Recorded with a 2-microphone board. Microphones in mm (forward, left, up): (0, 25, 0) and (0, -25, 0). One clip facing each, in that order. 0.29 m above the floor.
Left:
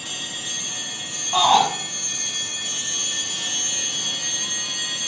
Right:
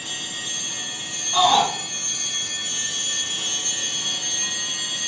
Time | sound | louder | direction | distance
1.3 | a shout | left 1 dB | 30° left (ahead or behind) | 2 m